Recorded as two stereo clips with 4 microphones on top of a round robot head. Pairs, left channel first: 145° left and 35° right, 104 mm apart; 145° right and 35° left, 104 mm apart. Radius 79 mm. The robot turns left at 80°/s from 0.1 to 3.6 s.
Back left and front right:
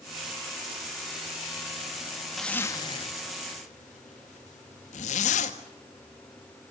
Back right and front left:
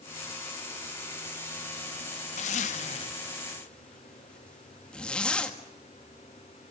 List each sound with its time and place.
2.4 s a zipper: 125° right, 1.5 m; by 5.6 s 135° left, 1.5 m